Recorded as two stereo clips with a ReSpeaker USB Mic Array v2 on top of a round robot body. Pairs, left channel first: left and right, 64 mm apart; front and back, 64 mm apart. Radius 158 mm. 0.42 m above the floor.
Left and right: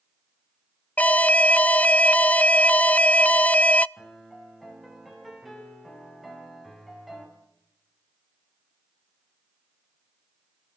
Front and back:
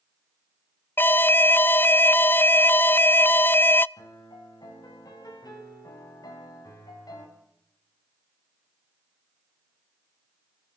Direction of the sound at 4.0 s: Straight ahead.